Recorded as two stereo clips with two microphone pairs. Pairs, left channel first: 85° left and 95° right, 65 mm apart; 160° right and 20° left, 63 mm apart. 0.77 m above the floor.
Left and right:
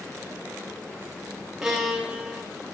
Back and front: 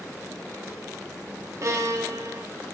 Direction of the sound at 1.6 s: 15° right.